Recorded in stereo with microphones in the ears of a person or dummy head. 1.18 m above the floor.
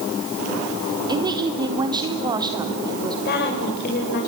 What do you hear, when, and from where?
1.1 s a woman speaking: 20° right (ahead or behind), 4 m
3.2 s a woman speaking: 55° left (ahead or behind), 5 m